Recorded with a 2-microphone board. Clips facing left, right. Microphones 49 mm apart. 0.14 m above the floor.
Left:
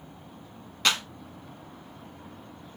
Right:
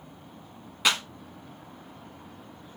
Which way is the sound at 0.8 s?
10° right (ahead or behind).